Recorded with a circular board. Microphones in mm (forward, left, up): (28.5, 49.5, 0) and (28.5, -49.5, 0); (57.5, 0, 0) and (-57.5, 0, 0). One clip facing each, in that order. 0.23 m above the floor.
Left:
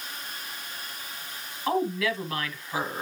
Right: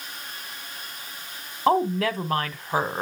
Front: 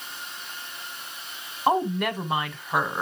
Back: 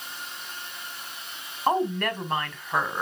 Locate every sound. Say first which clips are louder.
1.7 s a woman speaking: right 5 dB, front 1 dB; 75° right, 1.4 m